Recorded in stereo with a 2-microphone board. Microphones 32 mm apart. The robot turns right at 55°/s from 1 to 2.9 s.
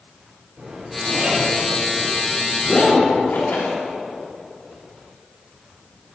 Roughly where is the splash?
Left.